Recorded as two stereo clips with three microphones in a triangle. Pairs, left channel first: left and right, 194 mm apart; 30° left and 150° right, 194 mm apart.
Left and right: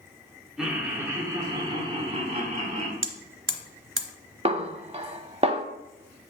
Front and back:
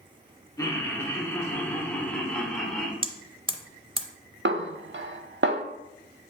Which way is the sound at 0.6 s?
10° right.